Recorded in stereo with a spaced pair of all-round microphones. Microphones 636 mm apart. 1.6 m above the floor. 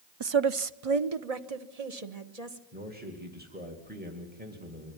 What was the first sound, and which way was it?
A woman speaking, 40° right (ahead or behind).